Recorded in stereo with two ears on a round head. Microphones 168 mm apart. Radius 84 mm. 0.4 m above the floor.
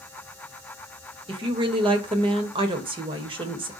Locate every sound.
1.3 s a woman speaking: 30° right (ahead or behind), 1.4 m